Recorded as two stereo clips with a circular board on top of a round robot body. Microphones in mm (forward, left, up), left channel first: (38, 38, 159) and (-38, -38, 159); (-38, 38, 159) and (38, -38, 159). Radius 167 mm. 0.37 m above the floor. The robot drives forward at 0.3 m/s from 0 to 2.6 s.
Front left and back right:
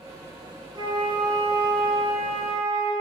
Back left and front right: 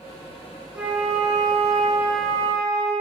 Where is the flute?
115° right, 0.9 m; by 2.9 s 145° right, 1.1 m.